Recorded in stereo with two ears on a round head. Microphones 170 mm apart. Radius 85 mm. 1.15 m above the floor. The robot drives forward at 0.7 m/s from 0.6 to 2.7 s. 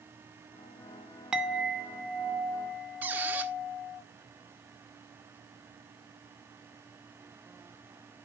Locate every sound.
1.3 s a clink: 5° right (ahead or behind), 1.0 m; by 4.0 s centre (ahead or behind), 1.9 m
3.0 s a squeak: 10° right (ahead or behind), 0.7 m